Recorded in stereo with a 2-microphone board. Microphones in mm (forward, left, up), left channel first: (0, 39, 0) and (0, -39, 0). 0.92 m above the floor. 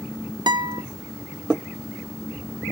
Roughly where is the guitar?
Right.